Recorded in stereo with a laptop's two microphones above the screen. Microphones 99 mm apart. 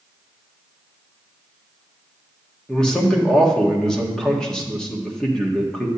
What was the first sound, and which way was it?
A man speaking, 5° left (ahead or behind).